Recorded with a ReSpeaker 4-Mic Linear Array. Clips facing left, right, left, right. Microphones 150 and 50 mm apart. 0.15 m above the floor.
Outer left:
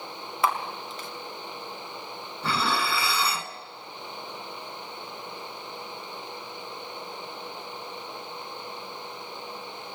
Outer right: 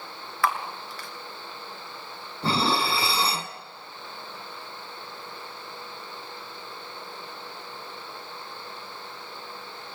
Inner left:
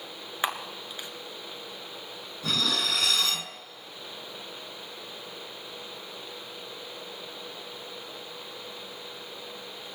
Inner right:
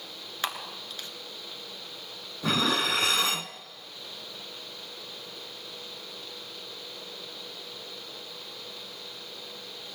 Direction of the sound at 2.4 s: 30° right (ahead or behind).